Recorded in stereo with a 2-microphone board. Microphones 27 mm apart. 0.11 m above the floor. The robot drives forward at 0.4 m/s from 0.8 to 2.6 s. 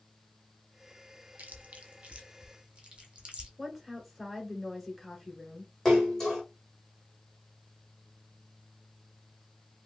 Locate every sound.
1.4 s chewing: 75° right (ahead or behind), 0.6 m; by 3.5 s 40° right (ahead or behind), 0.8 m
3.6 s a woman speaking: centre (ahead or behind), 1.1 m
5.8 s a splash: 10° left (ahead or behind), 1.8 m